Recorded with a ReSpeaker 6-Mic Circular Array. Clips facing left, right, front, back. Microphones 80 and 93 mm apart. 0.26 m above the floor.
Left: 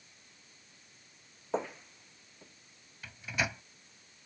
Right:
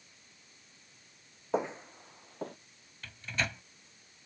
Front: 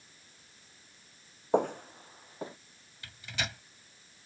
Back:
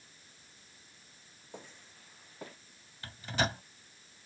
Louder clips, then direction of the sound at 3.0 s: Left 1 dB, back 6 dB; 165° left.